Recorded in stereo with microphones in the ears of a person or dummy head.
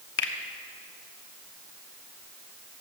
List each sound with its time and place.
0.2 s a finger snap: 55° left (ahead or behind), 1.0 m